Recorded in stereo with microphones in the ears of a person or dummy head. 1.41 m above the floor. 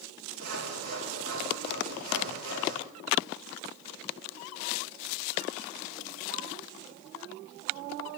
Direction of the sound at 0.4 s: 85° right.